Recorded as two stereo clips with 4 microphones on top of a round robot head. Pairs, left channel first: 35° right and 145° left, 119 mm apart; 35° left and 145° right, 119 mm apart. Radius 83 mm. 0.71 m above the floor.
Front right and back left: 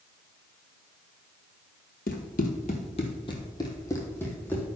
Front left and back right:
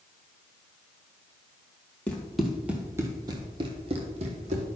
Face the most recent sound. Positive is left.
turn(degrees=-115)